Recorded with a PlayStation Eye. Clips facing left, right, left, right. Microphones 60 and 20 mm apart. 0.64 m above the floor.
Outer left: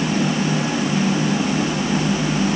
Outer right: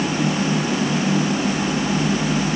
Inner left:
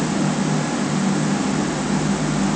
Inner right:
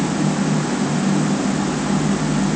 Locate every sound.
Only background noise.